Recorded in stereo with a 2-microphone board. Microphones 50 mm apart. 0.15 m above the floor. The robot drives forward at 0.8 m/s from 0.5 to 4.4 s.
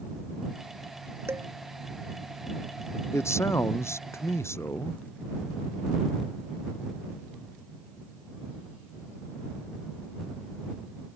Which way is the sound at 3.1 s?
75° left (ahead or behind).